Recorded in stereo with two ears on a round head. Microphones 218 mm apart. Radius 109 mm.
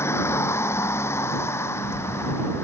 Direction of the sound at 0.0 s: 10° left (ahead or behind).